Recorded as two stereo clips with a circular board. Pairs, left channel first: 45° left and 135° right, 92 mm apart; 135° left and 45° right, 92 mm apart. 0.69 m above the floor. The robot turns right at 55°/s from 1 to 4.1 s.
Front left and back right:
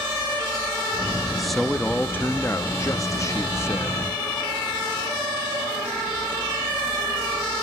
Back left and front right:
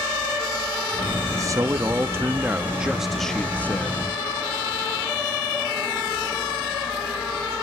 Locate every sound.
1.3 s a man speaking: 55° right, 0.7 m; by 4.0 s 95° left, 0.7 m